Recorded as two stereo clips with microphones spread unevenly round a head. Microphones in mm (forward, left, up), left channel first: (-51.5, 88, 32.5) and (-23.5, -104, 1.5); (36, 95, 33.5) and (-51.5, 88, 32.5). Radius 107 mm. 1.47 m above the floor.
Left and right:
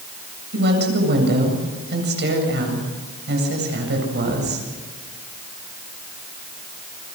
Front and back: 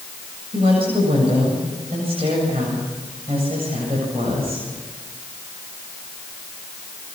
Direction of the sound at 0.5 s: 120° right.